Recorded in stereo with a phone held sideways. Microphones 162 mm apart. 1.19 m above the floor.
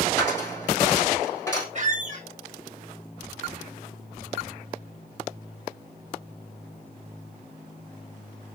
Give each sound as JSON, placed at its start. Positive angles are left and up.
{"t": 0.2, "sound": "a dropped coin", "side_deg": 15, "distance_m": 3.5}
{"t": 1.8, "sound": "a squeak", "side_deg": -50, "distance_m": 1.3}